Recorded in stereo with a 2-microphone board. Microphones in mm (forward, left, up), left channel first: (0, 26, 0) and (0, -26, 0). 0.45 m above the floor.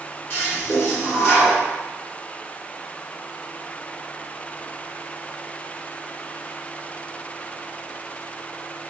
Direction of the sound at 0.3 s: 45° left (ahead or behind).